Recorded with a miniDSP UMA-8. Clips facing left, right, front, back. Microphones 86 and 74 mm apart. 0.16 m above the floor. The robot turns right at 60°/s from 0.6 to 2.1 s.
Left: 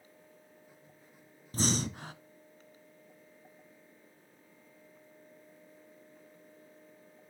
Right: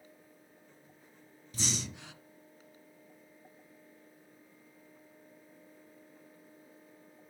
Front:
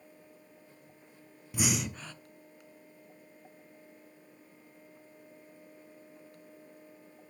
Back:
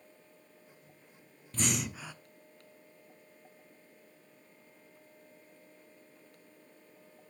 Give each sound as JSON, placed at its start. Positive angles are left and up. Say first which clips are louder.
{"t": 1.5, "sound": "breathing", "louder": "left 7 dB, front 2 dB", "azimuth_deg": 75, "distance_m": 0.5}